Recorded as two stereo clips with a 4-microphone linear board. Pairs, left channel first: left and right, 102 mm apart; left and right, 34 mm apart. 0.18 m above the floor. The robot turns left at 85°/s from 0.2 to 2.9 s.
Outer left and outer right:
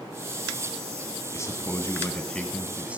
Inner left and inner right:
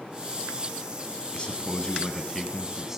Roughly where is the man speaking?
Left.